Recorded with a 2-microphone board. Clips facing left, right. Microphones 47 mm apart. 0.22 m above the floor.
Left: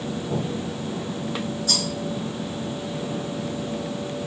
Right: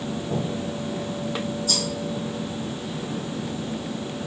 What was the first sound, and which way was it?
A rattle, 65° left (ahead or behind).